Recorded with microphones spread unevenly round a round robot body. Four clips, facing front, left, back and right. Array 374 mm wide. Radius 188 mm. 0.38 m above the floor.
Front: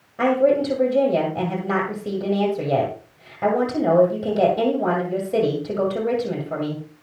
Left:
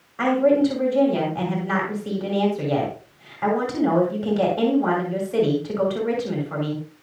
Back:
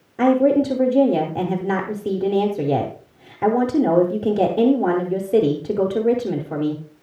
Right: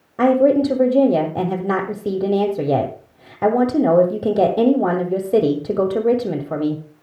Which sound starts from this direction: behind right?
A woman speaking, at 0.2 s.